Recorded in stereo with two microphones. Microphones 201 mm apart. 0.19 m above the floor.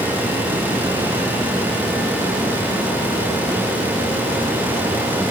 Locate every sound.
Only background noise.